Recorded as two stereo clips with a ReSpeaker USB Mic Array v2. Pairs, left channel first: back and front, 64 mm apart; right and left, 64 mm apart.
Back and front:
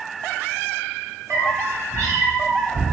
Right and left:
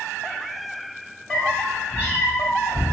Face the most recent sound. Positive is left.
turn(degrees=-25)